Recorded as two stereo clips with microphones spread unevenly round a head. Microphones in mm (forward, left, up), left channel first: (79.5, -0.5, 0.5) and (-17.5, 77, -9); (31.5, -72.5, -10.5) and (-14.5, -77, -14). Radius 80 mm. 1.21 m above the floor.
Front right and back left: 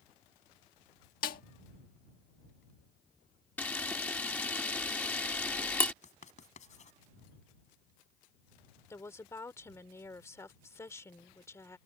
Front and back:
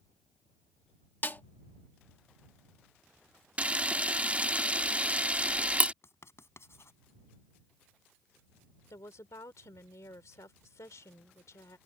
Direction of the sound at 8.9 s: 30° left.